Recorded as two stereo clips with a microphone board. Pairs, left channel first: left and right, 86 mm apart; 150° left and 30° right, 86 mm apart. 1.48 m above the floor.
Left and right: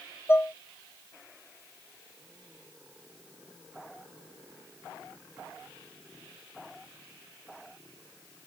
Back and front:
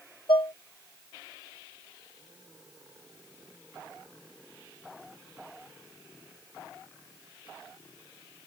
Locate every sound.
0.3 s dishes clattering: 155° left